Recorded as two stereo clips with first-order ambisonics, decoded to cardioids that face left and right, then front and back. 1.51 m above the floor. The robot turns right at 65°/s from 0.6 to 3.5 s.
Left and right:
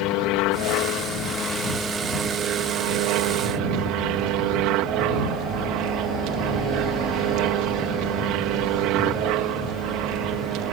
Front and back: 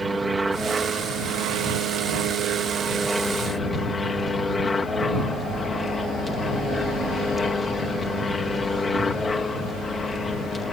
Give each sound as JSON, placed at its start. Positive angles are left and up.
{"t": 0.0, "sound": "an aircraft", "azimuth_deg": 100}